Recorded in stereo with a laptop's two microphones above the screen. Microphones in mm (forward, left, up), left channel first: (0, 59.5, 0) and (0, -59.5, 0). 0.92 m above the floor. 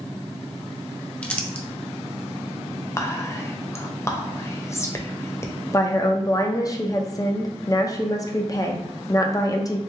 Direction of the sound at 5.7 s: 30° left (ahead or behind).